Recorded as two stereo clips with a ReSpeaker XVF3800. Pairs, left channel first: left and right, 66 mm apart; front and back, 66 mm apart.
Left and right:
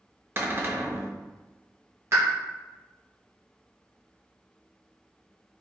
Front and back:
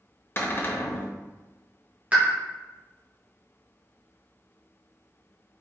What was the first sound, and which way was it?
A cupboard door, 45° right.